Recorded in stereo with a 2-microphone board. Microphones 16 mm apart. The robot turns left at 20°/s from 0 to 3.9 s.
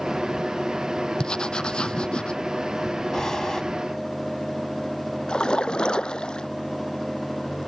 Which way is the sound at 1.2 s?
55° left (ahead or behind).